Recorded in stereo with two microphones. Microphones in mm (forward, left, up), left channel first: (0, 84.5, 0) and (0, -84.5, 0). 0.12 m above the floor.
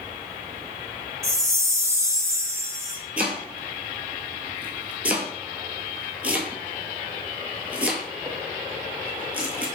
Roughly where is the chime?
Centre.